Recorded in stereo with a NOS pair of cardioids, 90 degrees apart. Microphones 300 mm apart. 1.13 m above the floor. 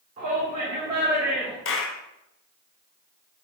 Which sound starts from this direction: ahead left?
A clap, at 1.6 s.